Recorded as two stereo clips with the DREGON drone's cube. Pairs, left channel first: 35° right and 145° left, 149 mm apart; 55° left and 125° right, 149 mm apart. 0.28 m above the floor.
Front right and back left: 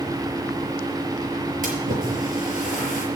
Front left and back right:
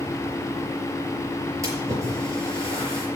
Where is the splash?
165° left, 5 m.